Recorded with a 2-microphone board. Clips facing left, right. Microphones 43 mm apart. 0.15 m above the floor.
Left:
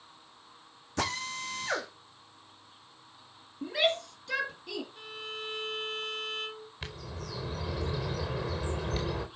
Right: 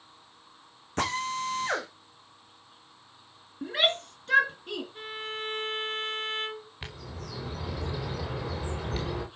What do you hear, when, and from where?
1.0 s a drill: 45° right (ahead or behind), 4 m
3.6 s a shout: 45° right (ahead or behind), 2.5 m
5.0 s a violin: 45° right (ahead or behind), 1.4 m
6.8 s a bird: 15° right (ahead or behind), 4.5 m